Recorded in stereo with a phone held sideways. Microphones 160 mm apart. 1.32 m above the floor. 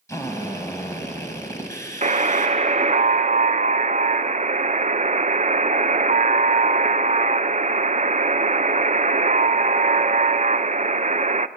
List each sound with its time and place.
0.1 s a drill: 20° left (ahead or behind), 3.5 m
2.0 s a buzzer: 45° right (ahead or behind), 0.5 m